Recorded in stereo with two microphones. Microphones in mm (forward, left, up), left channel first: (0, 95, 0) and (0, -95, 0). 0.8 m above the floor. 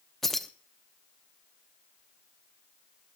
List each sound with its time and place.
0.2 s keys jangling: centre (ahead or behind), 0.8 m